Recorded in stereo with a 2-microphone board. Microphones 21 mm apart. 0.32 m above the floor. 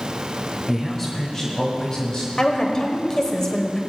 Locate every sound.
0.7 s a man speaking: 5° right (ahead or behind), 1.0 m; by 2.3 s 35° left (ahead or behind), 1.9 m
2.4 s a woman speaking: 30° left (ahead or behind), 1.1 m